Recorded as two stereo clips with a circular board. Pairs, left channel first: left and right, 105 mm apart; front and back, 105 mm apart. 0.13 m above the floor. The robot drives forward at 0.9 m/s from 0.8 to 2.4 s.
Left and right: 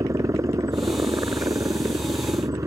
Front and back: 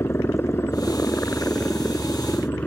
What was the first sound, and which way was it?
A helicopter, 55° right.